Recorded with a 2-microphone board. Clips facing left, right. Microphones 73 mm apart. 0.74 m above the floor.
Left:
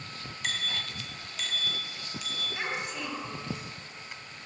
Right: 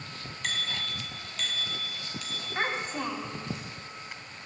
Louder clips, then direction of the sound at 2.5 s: Right 5 dB; 40° right (ahead or behind).